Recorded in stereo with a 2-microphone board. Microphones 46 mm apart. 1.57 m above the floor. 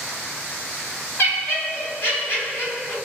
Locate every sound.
1.2 s laughter: 50° left (ahead or behind), 1.3 m